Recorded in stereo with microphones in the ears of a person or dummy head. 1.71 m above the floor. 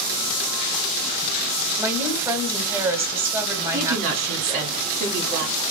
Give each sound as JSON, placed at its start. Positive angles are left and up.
{"t": 1.8, "sound": "a woman speaking", "side_deg": -10, "distance_m": 1.2}
{"t": 3.7, "sound": "a woman speaking", "side_deg": -45, "distance_m": 2.5}